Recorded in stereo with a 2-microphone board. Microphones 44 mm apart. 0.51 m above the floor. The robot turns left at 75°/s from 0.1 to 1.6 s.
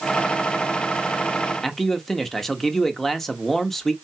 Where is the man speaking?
5° left (ahead or behind), 1.1 m.